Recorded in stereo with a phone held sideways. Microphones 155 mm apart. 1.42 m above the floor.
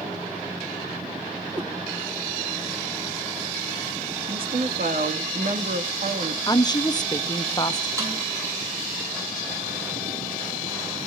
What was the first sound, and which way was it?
A cat meowing, 30° right (ahead or behind).